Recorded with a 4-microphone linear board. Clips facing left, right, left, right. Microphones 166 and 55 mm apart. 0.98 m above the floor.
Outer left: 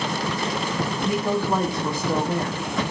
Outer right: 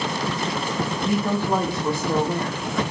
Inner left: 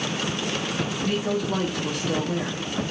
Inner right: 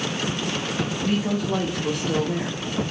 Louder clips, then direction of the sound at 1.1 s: Outer right 1 dB, inner right 1 dB; 5° right (ahead or behind).